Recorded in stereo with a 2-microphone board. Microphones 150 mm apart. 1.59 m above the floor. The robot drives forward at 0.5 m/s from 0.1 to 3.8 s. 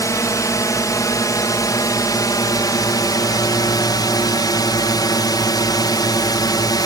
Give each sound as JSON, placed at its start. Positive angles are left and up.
{"t": 0.0, "sound": "a drone", "side_deg": 20}